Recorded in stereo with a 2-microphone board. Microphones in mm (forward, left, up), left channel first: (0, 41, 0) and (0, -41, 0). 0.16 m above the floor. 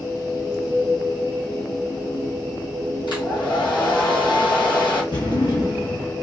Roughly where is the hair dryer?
Left.